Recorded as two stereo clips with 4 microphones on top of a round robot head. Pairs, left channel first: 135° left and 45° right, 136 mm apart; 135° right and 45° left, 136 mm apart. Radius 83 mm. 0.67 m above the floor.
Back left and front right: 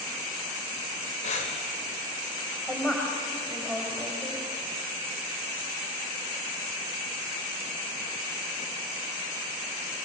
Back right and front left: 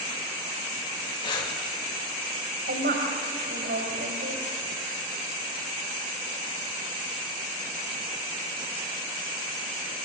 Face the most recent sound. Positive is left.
turn(degrees=55)